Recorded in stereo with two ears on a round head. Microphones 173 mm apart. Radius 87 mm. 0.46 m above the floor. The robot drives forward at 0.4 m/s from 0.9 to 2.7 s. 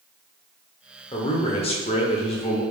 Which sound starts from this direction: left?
A man speaking, at 1.1 s.